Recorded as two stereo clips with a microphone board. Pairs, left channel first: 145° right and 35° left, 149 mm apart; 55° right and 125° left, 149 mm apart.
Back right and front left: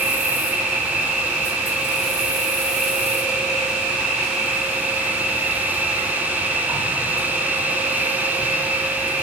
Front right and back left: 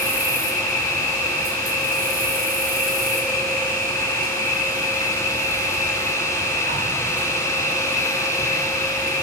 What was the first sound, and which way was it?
An insect, 115° left.